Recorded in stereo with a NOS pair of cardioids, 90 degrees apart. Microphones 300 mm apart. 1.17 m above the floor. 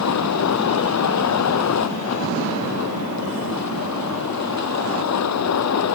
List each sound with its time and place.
0.0 s a vehicle: 65° left